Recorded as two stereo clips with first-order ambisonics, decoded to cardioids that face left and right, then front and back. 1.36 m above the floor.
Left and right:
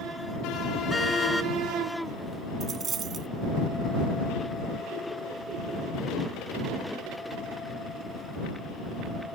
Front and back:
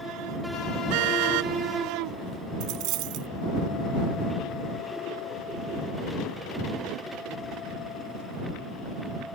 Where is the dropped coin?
155° right.